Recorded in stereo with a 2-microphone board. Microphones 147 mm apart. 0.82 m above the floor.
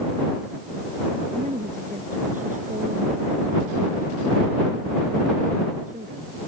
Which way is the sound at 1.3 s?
60° right (ahead or behind).